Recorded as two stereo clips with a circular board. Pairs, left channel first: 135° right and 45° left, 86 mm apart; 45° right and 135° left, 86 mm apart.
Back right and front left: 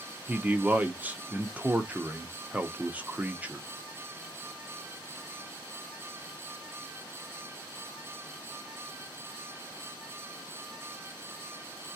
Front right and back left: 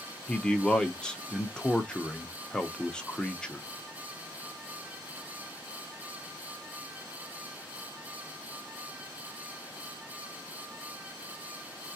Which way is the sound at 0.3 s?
15° left.